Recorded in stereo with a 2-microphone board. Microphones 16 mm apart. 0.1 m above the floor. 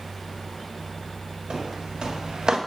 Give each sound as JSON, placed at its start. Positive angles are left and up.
{"t": 1.5, "sound": "footsteps", "side_deg": -60, "distance_m": 2.0}